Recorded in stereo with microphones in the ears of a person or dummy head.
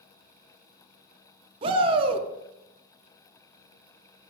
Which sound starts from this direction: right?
A shout, at 1.6 s.